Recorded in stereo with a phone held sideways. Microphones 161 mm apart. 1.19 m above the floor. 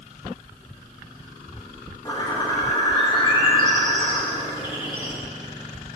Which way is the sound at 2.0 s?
25° left (ahead or behind).